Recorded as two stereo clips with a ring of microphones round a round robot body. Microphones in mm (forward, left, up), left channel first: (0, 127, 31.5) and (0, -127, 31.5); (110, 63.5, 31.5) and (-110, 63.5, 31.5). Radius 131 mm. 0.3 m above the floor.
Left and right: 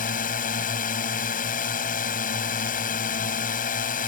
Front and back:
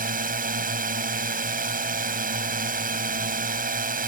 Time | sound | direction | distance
0.0 | a drone | 140° left | ?